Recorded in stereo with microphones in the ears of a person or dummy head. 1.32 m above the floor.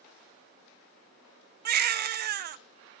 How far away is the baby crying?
About 0.6 m.